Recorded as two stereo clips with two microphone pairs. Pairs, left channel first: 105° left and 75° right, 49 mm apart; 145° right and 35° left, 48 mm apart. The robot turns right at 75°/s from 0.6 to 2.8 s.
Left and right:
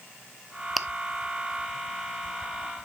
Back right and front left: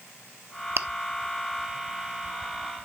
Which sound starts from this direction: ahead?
Chewing, at 0.8 s.